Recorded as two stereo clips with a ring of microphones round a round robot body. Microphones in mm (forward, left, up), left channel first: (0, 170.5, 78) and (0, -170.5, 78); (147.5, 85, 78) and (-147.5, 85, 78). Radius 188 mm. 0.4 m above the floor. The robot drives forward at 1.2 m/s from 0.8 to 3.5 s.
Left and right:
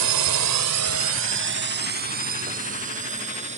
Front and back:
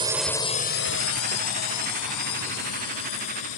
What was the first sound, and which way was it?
A drone, 110° right.